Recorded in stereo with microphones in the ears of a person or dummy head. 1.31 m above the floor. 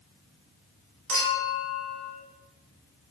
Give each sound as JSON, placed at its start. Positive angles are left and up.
{"t": 1.1, "sound": "a clink", "side_deg": -60, "distance_m": 1.0}